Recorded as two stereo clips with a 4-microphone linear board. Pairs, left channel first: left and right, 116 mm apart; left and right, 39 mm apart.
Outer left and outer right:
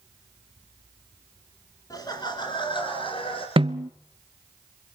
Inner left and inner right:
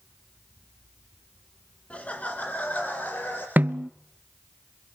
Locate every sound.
1.9 s laughter: 30° left (ahead or behind), 1.8 m; by 3.5 s 50° left (ahead or behind), 3 m
3.6 s a snare drum: 50° right (ahead or behind), 0.6 m